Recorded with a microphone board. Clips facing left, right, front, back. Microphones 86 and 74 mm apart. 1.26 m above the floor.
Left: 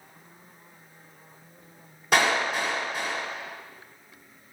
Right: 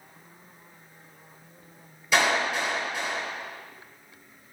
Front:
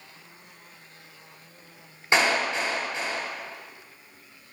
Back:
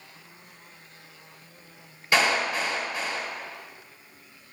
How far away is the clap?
About 3.5 m.